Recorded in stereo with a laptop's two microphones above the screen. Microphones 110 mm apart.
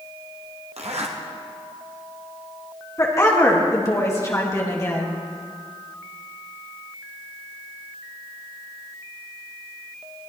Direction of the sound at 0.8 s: 75° right (ahead or behind).